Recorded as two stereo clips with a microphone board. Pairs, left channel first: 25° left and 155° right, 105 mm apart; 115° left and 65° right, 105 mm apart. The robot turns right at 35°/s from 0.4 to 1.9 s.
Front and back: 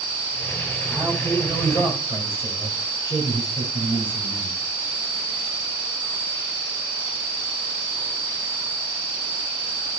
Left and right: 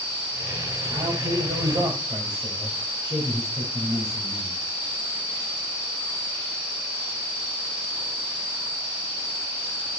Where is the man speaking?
55° right, 6.5 m; by 4.6 s 20° right, 6.5 m.